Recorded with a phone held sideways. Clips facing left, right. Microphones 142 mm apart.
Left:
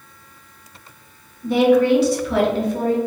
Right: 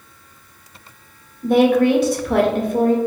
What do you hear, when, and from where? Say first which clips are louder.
1.4 s a woman speaking: right 1 dB; 50° right (ahead or behind), 0.8 m